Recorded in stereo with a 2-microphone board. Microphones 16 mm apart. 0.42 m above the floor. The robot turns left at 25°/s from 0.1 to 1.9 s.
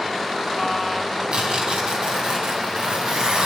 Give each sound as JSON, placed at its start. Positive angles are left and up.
{"t": 1.3, "sound": "tearing paper", "side_deg": -70, "distance_m": 3.5}